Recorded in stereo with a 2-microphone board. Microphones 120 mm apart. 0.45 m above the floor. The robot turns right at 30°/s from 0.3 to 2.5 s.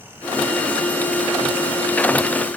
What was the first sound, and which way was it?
Only background noise.